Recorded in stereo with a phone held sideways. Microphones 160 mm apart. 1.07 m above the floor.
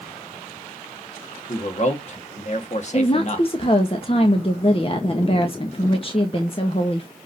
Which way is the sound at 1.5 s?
50° left (ahead or behind).